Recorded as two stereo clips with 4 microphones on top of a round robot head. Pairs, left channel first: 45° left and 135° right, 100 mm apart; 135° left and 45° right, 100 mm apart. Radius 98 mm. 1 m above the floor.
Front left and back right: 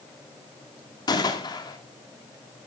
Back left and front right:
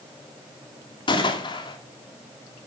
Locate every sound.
1.1 s a gunshot: 95° left, 2 m